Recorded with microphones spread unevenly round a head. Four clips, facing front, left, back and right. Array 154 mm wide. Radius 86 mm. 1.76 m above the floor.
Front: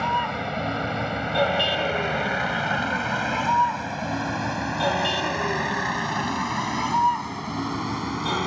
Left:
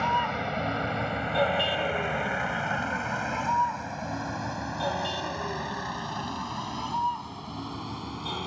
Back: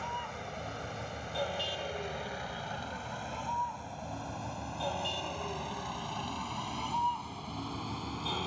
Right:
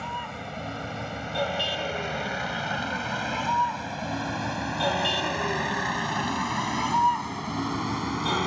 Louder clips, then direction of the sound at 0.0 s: Left 7 dB, front 14 dB; 15° left.